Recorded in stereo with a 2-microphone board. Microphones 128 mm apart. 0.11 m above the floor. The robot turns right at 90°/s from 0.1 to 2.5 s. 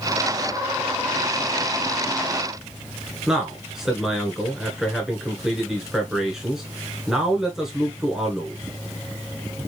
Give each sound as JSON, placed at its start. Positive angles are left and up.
{"t": 3.3, "sound": "a man speaking", "side_deg": -5, "distance_m": 1.5}